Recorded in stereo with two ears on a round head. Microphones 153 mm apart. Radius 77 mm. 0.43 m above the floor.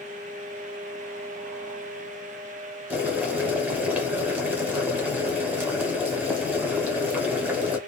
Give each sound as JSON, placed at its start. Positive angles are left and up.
{"t": 2.9, "sound": "boiling", "side_deg": -10, "distance_m": 1.1}